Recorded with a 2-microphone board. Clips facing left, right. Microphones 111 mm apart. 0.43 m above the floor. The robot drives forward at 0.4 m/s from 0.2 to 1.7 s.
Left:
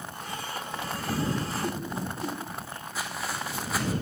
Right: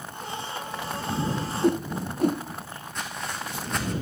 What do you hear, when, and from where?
1.6 s a whoosh: 55° right (ahead or behind), 0.5 m
3.0 s footsteps: 5° left (ahead or behind), 2 m